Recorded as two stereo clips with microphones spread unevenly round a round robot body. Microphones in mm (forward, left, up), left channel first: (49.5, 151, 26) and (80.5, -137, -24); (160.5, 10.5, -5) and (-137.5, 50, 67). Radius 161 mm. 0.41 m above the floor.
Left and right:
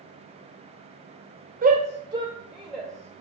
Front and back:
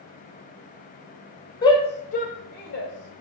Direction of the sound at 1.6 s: 60° right.